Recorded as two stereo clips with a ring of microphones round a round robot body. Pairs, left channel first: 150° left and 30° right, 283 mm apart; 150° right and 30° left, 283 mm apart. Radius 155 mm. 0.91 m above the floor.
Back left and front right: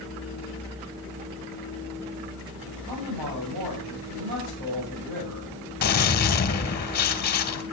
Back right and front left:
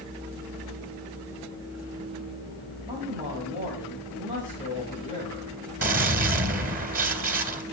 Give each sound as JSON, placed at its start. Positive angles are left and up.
{"t": 2.9, "sound": "a man speaking", "azimuth_deg": -35, "distance_m": 8.0}
{"t": 5.8, "sound": "a gunshot", "azimuth_deg": 90, "distance_m": 2.5}